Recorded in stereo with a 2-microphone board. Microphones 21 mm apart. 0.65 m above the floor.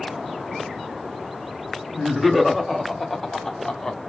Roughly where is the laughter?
Centre.